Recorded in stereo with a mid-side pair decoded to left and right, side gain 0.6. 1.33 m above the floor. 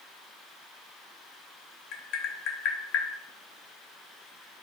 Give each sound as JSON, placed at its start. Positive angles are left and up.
{"t": 1.9, "sound": "tapping", "azimuth_deg": 70, "distance_m": 0.8}